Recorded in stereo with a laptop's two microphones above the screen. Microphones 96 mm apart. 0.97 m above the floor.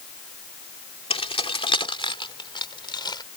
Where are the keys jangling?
65° left (ahead or behind); by 3.2 s 45° left (ahead or behind).